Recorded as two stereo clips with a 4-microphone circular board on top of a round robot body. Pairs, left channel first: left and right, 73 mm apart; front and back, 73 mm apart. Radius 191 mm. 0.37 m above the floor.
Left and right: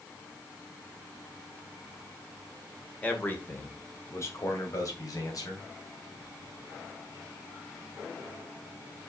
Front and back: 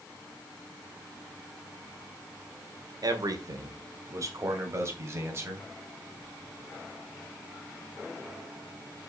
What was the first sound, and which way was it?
A man speaking, 160° left.